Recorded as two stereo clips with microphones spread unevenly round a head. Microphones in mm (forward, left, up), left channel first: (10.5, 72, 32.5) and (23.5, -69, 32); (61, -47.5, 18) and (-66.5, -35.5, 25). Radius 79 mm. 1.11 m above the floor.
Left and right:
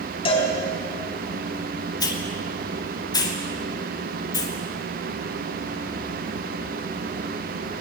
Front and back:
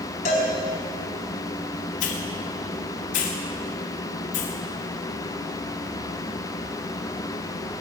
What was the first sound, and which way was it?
A cowbell, 45° left.